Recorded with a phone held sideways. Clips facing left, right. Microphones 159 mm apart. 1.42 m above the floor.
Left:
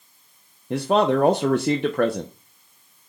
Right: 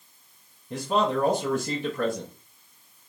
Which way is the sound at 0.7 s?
70° left (ahead or behind).